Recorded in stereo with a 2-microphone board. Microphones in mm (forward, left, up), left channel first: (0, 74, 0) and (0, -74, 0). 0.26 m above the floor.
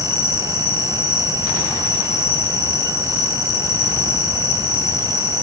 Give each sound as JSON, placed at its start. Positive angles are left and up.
{"t": 0.0, "sound": "an insect", "side_deg": 20, "distance_m": 4.0}